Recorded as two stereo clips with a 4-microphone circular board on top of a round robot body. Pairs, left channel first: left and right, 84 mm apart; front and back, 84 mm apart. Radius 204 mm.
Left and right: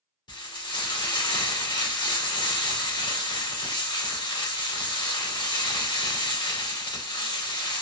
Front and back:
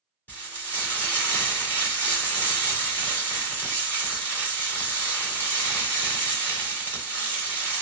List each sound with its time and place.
0.3 s frying: 65° left, 2 m